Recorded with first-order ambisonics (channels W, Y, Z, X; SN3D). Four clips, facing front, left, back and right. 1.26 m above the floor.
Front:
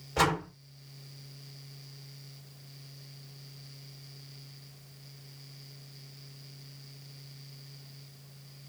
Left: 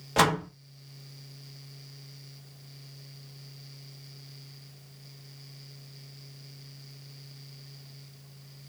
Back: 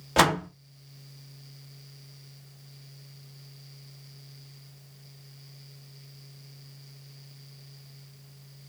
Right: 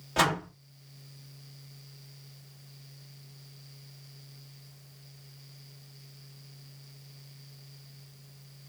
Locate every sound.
0.2 s a door slam: 160° left, 0.9 m